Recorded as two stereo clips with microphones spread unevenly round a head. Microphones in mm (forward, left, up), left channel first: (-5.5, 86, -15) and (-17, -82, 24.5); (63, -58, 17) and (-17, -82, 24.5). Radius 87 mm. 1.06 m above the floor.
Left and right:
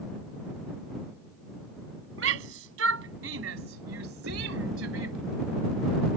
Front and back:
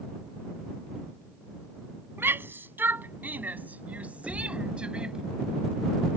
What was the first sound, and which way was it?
A shout, 100° right.